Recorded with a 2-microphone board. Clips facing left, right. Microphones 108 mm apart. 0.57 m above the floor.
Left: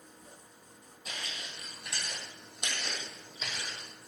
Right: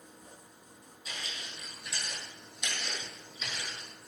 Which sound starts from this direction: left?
Footsteps, at 1.1 s.